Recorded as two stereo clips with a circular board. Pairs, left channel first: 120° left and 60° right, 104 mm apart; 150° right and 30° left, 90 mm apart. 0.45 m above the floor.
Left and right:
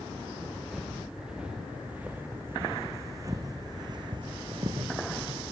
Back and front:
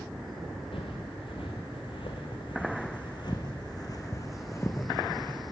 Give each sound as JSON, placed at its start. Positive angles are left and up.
{"t": 0.7, "sound": "footsteps", "azimuth_deg": -145, "distance_m": 2.5}